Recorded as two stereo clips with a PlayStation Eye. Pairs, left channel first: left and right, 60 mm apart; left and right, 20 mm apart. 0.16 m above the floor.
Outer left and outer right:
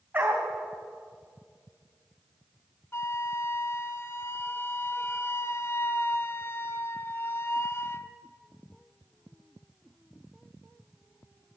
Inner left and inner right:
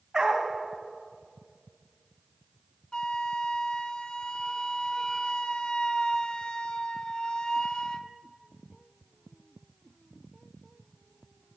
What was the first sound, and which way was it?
A dog barking, 30° right (ahead or behind).